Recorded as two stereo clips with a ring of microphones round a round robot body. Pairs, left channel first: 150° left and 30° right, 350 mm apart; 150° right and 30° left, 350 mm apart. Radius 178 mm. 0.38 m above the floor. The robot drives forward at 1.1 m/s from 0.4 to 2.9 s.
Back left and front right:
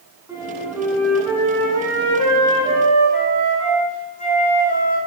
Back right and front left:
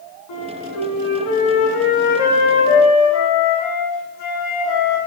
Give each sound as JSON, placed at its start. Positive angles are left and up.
{"t": 0.3, "sound": "a flute", "azimuth_deg": -115, "distance_m": 4.0}